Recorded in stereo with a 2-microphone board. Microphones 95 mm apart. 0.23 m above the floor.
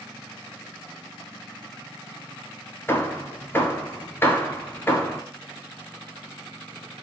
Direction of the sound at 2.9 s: 20° left (ahead or behind).